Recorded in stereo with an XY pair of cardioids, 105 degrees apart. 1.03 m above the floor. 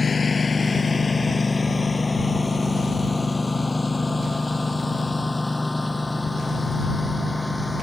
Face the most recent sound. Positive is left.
turn(degrees=10)